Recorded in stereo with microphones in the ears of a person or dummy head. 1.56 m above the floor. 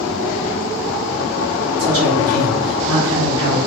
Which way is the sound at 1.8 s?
75° right (ahead or behind).